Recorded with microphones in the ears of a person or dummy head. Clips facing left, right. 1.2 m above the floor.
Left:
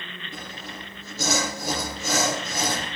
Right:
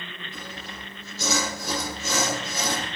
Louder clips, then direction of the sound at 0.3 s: Left 3 dB; 50° left (ahead or behind).